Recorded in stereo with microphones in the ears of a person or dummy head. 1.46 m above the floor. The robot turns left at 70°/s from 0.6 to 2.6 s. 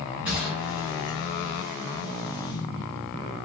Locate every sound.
0.2 s a gunshot: 10° right (ahead or behind), 1.5 m; by 1.2 s 30° right (ahead or behind), 1.5 m